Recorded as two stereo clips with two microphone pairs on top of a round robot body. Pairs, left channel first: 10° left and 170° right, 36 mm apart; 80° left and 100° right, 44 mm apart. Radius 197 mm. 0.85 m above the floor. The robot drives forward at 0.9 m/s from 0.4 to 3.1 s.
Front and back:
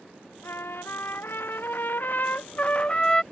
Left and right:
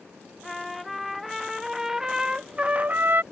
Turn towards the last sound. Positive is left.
turn(degrees=-65)